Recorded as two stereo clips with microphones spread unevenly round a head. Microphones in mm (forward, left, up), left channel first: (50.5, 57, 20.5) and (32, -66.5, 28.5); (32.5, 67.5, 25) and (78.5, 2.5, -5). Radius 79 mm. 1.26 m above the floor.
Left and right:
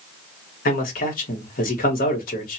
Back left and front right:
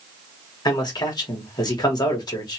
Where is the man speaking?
85° left, 1.5 m.